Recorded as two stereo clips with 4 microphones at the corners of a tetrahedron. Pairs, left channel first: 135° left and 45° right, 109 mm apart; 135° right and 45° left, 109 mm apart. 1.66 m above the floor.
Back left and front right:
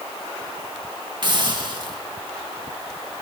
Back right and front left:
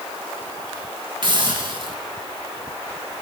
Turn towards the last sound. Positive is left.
turn(degrees=0)